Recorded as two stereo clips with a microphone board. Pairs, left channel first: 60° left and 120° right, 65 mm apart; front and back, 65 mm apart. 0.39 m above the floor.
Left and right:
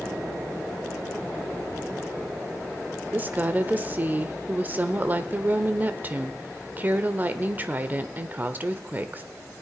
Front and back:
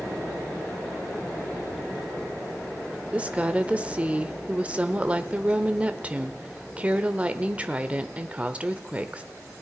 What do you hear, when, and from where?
3.1 s a woman speaking: 135° right, 1.0 m